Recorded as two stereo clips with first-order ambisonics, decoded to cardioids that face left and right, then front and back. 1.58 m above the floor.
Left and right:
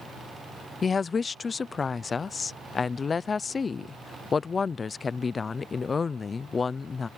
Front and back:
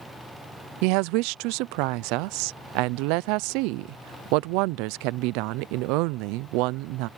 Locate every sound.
0.8 s a woman speaking: 165° left